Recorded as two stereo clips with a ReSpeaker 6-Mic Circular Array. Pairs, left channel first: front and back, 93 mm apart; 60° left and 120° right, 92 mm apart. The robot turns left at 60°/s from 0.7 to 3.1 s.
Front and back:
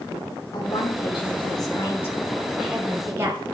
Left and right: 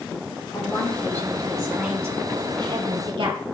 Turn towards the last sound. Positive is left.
turn(degrees=-125)